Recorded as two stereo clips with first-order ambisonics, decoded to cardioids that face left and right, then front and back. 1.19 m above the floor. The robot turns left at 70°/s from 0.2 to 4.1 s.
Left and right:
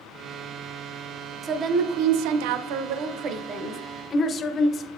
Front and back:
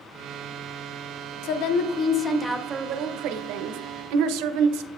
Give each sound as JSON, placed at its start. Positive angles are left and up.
{"t": 1.4, "sound": "a woman speaking", "azimuth_deg": -15, "distance_m": 0.7}